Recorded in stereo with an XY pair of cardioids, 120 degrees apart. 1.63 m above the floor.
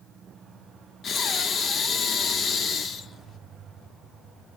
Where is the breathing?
45° left, 0.9 m.